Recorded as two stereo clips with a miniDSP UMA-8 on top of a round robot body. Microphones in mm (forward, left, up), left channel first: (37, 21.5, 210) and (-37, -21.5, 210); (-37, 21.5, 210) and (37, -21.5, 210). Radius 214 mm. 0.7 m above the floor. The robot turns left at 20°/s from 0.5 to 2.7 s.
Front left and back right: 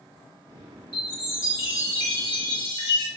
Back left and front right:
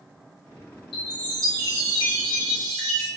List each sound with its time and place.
0.9 s a chime: 130° left, 0.5 m; by 3.1 s 95° left, 0.5 m